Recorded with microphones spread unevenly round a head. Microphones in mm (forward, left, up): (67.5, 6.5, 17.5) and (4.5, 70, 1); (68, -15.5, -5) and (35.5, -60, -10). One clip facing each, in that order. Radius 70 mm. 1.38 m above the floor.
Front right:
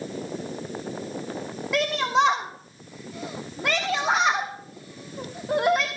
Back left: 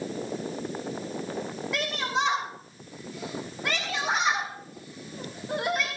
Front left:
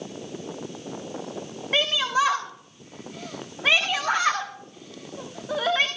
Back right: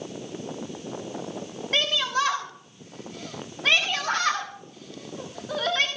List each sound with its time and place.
1.7 s a shout: 25° right, 1.0 m